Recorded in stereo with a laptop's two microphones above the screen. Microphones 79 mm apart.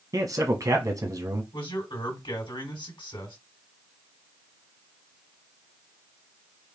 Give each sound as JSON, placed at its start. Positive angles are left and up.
{"t": 0.1, "sound": "a man speaking", "side_deg": -45, "distance_m": 1.1}
{"t": 1.5, "sound": "a man speaking", "side_deg": 80, "distance_m": 3.0}